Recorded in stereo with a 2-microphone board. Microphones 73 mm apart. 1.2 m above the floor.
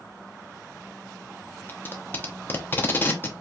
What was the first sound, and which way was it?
Tape being pulled, 30° left (ahead or behind).